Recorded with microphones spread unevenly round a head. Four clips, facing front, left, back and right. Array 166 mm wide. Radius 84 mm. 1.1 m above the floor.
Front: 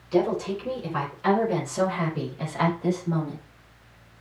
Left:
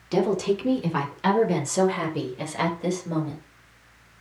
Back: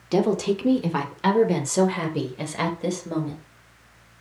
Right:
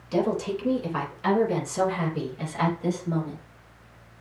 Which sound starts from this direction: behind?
A woman speaking, at 0.1 s.